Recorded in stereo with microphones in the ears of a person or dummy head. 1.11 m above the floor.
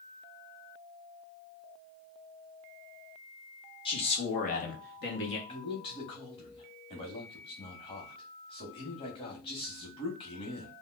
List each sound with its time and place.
3.9 s a man speaking: 25° left (ahead or behind), 1.2 m; by 5.4 s 55° left (ahead or behind), 1.0 m
5.5 s a man speaking: 30° left (ahead or behind), 1.0 m